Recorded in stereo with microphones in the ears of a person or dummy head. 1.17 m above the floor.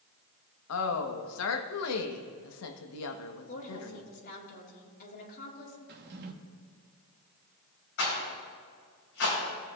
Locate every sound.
0.7 s a woman speaking: 80° left, 1.0 m
3.5 s a woman speaking: 50° left (ahead or behind), 2.0 m
5.9 s a drawer: 55° right (ahead or behind), 1.1 m
8.0 s a rattle: 60° left (ahead or behind), 4 m